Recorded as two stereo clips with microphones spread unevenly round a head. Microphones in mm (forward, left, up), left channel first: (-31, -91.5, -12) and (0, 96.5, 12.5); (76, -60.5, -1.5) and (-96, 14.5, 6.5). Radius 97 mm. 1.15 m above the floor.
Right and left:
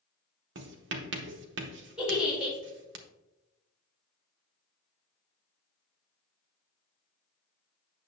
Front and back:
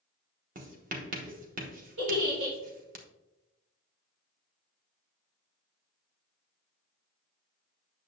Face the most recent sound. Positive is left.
turn(degrees=170)